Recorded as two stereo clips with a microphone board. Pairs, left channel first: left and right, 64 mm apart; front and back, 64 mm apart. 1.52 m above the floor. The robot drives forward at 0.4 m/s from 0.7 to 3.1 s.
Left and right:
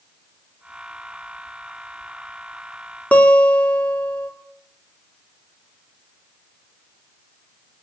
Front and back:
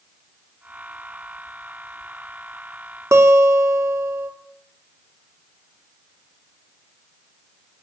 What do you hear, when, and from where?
3.1 s a guitar: 155° left, 1.8 m